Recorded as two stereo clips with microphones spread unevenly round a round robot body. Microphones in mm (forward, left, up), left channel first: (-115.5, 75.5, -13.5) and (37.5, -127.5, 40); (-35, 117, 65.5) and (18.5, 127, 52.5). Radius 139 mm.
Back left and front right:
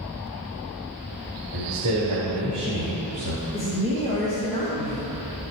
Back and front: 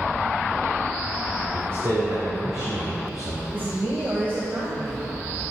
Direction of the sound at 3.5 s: 55° left.